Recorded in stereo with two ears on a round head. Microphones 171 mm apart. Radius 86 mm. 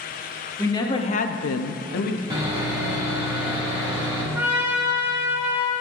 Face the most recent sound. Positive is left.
turn(degrees=-10)  # may be behind; listen again after turning